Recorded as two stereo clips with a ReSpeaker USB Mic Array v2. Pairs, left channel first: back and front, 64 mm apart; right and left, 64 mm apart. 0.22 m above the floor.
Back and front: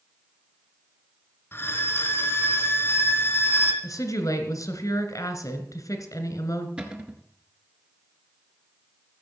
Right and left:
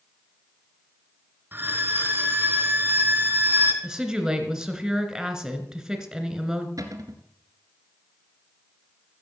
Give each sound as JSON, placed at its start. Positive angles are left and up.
{"t": 1.5, "sound": "a violin", "azimuth_deg": 140, "distance_m": 2.0}
{"t": 3.8, "sound": "a woman speaking", "azimuth_deg": 170, "distance_m": 2.5}
{"t": 6.8, "sound": "a cupboard door", "azimuth_deg": 75, "distance_m": 1.7}